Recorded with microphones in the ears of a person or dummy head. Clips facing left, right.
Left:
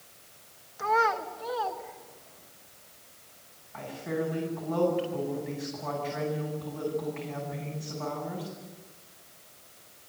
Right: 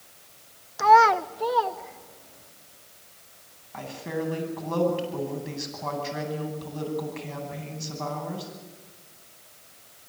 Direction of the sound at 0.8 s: 65° right (ahead or behind).